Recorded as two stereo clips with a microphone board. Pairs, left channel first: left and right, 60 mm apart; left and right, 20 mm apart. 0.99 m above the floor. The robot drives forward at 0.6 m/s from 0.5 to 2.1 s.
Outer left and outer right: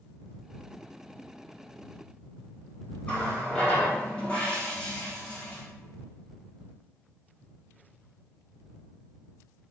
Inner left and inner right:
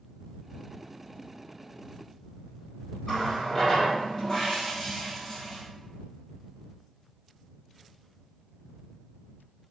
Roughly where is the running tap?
Centre.